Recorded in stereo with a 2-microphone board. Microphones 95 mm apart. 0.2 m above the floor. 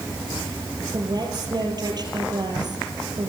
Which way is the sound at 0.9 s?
45° right (ahead or behind).